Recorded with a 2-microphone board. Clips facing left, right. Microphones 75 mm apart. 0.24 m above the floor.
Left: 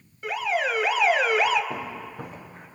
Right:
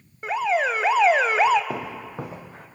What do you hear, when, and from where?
0.2 s an alarm: 30° right (ahead or behind), 1.1 m
1.7 s footsteps: 85° right, 3 m